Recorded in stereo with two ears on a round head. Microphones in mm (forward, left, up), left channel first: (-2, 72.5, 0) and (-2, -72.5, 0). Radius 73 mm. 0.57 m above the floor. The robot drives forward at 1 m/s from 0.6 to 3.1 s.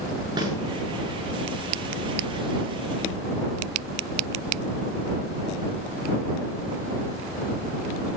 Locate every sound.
0.4 s a snare drum: 30° right (ahead or behind), 8.5 m